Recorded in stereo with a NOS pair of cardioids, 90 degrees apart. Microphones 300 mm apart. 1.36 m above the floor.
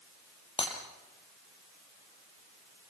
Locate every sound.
0.6 s breaking glass: 20° left, 4.5 m